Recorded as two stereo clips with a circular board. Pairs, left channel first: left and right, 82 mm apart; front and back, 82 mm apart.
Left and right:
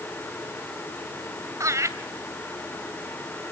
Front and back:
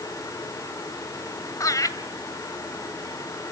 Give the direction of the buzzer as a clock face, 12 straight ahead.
I don't hear a buzzer.